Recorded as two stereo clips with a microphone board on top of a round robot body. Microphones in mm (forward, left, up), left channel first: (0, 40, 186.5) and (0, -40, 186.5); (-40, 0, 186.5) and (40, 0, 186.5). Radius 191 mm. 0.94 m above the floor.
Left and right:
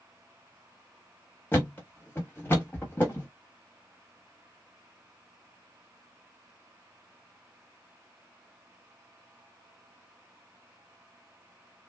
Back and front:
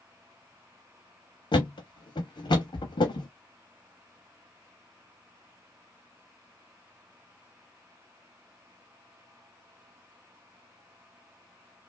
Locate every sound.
1.5 s a thud: 160° left, 0.6 m